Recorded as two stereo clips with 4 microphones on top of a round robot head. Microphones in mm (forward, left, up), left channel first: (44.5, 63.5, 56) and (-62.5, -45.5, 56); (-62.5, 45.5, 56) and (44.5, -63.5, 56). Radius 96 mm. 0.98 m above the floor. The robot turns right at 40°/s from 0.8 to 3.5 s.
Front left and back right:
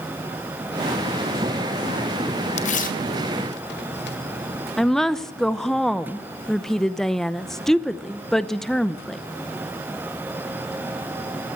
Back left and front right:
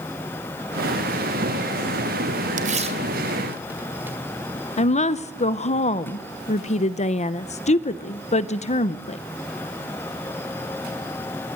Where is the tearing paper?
5° right, 2 m; by 4.2 s 35° left, 2 m.